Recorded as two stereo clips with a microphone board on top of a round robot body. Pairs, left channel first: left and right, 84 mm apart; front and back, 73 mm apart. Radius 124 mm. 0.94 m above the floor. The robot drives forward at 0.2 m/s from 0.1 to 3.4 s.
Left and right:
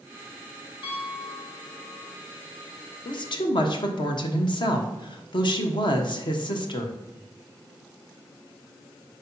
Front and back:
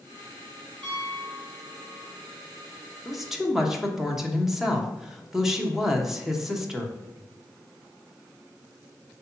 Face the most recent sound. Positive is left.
turn(degrees=95)